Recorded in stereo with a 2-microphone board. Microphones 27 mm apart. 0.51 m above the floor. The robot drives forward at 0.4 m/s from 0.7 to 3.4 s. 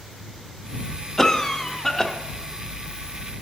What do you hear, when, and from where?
1.2 s a cough: 20° left (ahead or behind), 0.6 m; by 2.1 s 15° left (ahead or behind), 0.8 m